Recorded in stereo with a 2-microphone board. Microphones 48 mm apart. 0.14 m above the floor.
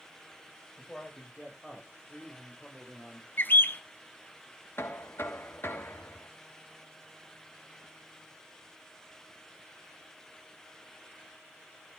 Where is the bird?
45° left (ahead or behind), 0.9 m.